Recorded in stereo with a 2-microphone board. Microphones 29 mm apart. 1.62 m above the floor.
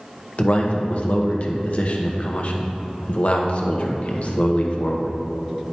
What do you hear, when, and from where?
0.4 s a man speaking: 50° left (ahead or behind), 0.9 m